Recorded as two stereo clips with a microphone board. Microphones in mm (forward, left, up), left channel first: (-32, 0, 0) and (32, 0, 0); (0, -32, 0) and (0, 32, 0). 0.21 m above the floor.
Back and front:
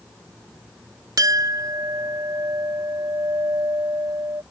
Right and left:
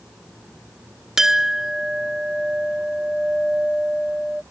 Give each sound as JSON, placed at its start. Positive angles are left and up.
{"t": 1.2, "sound": "a clink", "azimuth_deg": 10}